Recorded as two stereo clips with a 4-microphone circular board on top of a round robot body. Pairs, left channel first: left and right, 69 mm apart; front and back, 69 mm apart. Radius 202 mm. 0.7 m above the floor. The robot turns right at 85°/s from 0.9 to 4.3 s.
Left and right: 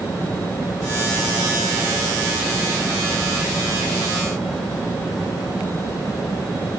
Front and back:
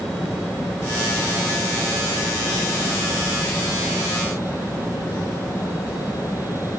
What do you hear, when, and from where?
Only background noise.